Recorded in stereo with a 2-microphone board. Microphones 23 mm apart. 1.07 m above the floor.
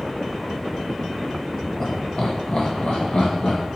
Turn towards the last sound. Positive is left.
turn(degrees=60)  # may be behind; listen again after turning